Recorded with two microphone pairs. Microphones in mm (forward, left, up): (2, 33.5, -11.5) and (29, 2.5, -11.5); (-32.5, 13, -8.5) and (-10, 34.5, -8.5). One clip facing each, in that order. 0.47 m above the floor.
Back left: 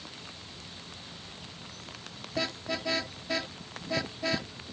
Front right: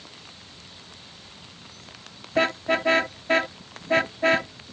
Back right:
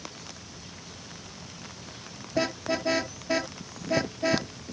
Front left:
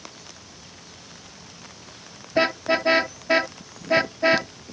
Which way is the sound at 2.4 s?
10° right.